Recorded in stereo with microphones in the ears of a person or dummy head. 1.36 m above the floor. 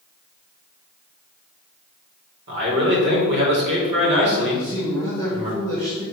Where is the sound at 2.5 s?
60° right (ahead or behind), 3.5 m.